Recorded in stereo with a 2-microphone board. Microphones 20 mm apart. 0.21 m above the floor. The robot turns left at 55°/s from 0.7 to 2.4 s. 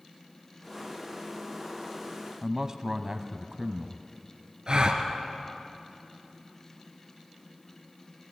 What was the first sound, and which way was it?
A man speaking, 30° right (ahead or behind).